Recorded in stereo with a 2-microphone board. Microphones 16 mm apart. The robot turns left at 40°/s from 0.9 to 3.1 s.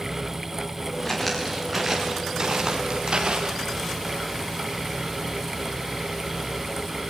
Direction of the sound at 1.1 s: 15° left (ahead or behind).